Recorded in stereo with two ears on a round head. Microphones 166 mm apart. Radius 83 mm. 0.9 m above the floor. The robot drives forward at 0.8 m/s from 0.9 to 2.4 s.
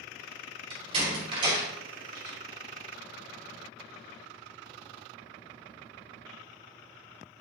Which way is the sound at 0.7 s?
30° right (ahead or behind).